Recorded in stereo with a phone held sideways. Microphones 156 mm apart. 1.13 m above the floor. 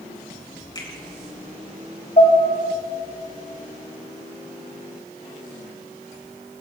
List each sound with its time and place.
0.8 s a finger snap: 25° left (ahead or behind), 4 m
2.2 s dishes clattering: 50° left (ahead or behind), 4 m